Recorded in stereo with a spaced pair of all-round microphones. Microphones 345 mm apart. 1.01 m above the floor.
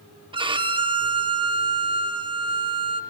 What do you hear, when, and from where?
0.3 s a violin: 15° right (ahead or behind), 0.6 m